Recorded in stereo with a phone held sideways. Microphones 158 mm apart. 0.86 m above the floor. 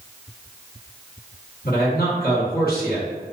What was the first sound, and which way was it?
A man speaking, 70° left (ahead or behind).